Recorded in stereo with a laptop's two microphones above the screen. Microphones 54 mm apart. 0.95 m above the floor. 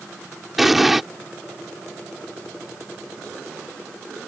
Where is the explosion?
5° right (ahead or behind).